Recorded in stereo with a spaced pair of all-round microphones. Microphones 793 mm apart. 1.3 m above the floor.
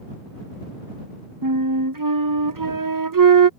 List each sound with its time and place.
1.4 s a flute: 25° right (ahead or behind)